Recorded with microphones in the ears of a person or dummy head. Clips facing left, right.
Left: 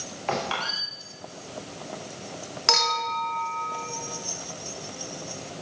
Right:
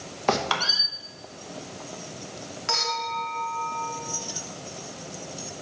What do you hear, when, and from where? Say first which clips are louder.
0.3 s a squeak: right 4 dB; 65° right (ahead or behind), 0.9 m
2.7 s a clink: left 3 dB; 60° left (ahead or behind), 1.4 m